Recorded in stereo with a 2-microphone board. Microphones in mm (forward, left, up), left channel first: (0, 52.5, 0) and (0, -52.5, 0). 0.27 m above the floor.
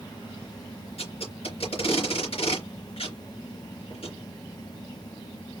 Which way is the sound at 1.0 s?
65° left (ahead or behind).